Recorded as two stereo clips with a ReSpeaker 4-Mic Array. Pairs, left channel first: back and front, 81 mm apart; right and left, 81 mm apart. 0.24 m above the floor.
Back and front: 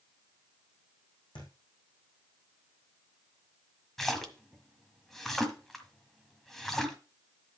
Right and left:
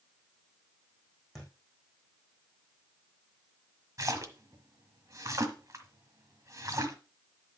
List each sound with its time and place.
1.4 s a thud: straight behind, 4.5 m
4.0 s a splash: 95° left, 1.5 m